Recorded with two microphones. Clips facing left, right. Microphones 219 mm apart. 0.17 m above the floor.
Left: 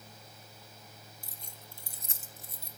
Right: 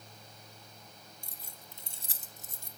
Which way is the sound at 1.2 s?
5° left (ahead or behind).